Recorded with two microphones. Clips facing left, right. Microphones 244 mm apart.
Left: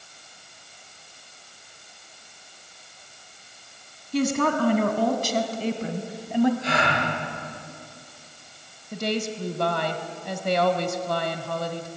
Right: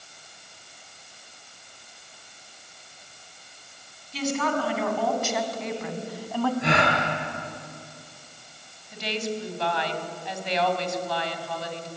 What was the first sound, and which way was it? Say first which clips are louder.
A woman speaking: left 4 dB; 55° left (ahead or behind).